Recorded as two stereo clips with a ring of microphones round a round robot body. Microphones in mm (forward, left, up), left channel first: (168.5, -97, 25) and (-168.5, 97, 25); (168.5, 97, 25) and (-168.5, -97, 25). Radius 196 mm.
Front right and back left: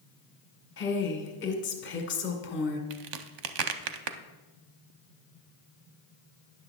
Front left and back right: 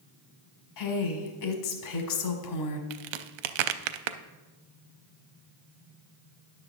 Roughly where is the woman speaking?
Ahead left.